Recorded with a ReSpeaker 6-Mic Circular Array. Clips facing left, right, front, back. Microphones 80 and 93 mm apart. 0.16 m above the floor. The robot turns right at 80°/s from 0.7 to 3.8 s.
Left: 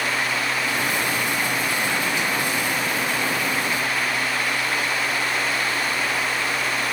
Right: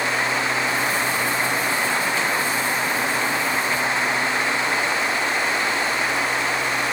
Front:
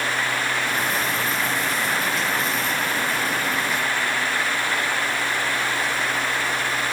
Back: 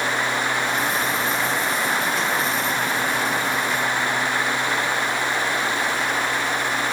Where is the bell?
I don't hear a bell.